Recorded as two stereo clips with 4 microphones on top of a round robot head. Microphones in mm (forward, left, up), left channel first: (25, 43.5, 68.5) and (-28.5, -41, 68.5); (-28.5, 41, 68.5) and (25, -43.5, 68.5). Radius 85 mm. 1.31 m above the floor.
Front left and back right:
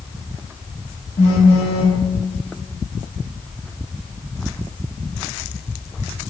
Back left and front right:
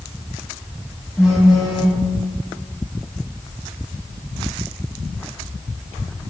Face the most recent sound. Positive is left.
turn(degrees=30)